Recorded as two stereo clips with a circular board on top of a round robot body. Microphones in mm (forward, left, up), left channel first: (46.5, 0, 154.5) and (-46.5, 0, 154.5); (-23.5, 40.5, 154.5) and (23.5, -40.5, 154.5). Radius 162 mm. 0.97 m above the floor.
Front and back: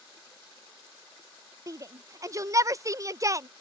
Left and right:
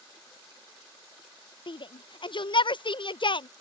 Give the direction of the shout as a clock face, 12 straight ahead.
8 o'clock.